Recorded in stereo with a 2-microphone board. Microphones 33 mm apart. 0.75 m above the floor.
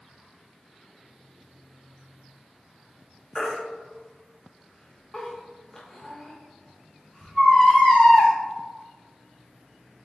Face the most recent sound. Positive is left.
turn(degrees=20)  # may be behind; listen again after turning